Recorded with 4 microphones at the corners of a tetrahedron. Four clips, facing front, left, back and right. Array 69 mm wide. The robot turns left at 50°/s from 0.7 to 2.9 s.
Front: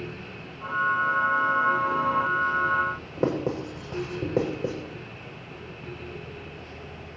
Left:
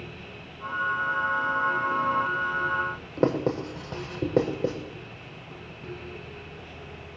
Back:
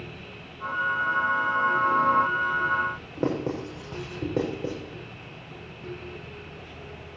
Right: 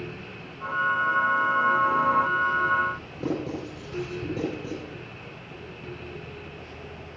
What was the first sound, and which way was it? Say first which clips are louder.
Writing: left 8 dB, front 1 dB; 90° left.